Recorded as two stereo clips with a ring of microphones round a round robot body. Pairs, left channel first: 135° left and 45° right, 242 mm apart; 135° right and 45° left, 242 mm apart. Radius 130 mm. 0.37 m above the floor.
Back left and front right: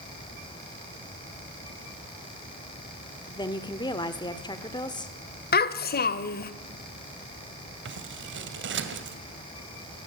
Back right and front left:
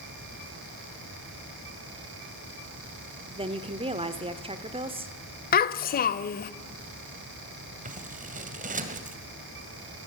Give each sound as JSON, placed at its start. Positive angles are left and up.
{"t": 3.3, "sound": "a woman speaking", "azimuth_deg": 85, "distance_m": 1.4}
{"t": 5.5, "sound": "a child speaking", "azimuth_deg": 180, "distance_m": 1.2}
{"t": 7.8, "sound": "scissors", "azimuth_deg": -10, "distance_m": 2.0}